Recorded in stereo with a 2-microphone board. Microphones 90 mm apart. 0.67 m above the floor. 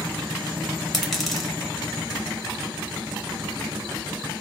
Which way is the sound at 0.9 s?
5° left (ahead or behind).